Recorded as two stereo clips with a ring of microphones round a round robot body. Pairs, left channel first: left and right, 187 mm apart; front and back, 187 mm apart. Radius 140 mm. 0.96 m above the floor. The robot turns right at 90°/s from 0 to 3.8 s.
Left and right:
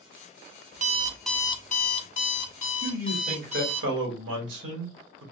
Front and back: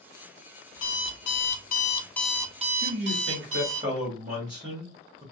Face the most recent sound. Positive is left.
turn(degrees=-105)